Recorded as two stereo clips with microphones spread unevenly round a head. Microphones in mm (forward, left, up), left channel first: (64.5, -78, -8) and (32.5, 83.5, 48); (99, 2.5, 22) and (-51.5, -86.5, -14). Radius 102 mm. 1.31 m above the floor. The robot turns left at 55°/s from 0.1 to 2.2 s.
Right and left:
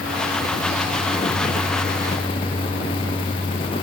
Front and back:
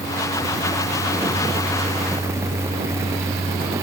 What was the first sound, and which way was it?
Only background noise.